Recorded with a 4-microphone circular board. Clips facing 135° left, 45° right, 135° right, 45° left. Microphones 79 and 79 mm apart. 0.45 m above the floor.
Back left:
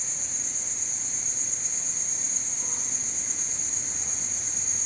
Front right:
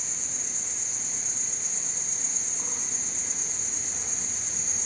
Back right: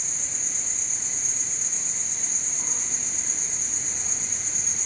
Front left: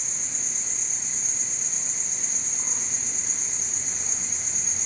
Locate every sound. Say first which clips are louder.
0.0 s an insect: front right 1 dB, even; 35° right, 1.2 m